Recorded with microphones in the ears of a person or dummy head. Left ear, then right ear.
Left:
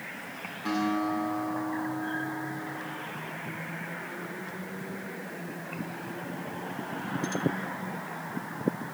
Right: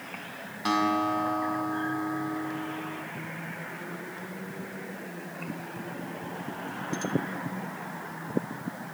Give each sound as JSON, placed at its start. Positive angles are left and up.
{"t": 0.7, "sound": "a guitar", "side_deg": -40, "distance_m": 5.0}